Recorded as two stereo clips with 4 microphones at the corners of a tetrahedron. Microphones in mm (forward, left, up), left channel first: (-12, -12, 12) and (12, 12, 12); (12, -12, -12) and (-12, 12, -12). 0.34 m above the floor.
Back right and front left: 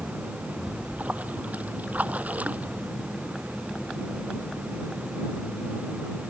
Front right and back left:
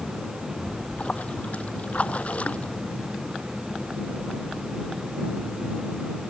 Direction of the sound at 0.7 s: Straight ahead.